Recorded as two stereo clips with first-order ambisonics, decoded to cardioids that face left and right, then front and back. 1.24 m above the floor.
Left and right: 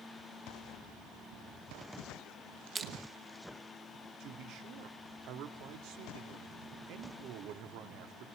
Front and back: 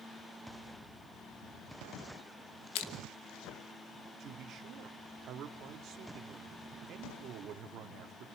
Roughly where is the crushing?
Ahead.